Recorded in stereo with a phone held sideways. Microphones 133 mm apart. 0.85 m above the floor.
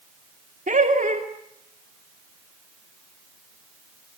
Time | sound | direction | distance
0.7 | laughter | 70° right (ahead or behind) | 2.5 m